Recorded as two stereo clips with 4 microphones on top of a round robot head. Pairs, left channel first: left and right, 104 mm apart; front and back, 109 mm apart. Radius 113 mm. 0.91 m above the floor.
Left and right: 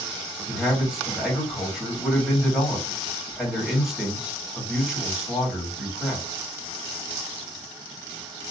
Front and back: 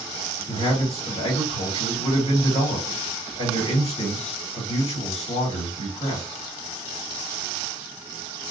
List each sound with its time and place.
0.5 s a man speaking: 5° right, 2.5 m